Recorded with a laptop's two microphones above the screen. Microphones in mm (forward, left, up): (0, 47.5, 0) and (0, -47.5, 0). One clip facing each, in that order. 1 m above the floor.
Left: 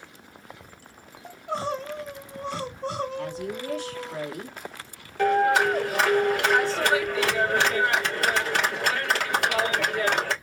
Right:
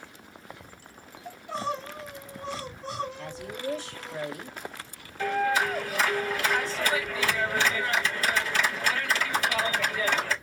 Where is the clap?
70° left (ahead or behind), 2.5 m.